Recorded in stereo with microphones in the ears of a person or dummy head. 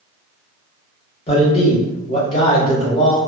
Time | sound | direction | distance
1.3 | a man speaking | 30° left (ahead or behind) | 1.7 m